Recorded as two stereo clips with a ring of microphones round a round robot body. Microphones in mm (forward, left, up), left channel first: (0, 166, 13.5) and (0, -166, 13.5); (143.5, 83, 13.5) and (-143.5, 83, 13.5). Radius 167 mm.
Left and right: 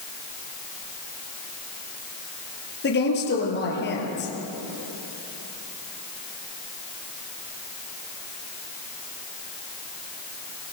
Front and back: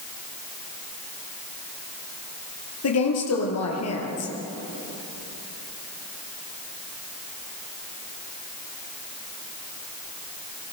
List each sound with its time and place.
2.8 s a woman speaking: 30° left, 7 m